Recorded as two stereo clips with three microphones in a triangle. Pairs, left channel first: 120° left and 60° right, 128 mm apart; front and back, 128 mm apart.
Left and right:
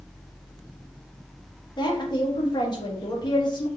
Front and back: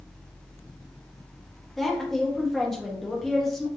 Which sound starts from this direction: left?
A woman speaking, at 1.8 s.